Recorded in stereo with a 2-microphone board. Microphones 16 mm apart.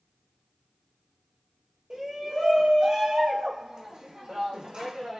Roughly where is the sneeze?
No sneeze in this recording.